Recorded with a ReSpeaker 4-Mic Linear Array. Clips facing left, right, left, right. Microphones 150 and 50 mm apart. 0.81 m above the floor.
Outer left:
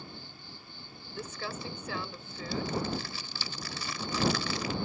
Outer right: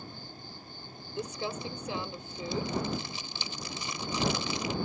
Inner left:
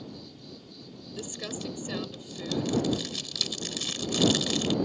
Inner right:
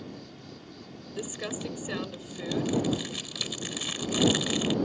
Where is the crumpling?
20° right (ahead or behind).